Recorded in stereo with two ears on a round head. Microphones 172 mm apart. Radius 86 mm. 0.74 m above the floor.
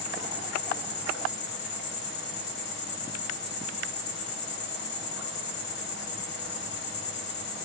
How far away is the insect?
About 0.9 m.